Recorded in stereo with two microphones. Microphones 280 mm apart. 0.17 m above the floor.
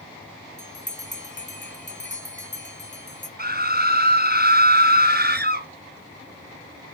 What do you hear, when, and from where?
0.6 s a bell: 40° left (ahead or behind), 1.0 m
3.4 s a scream: 35° right (ahead or behind), 1.3 m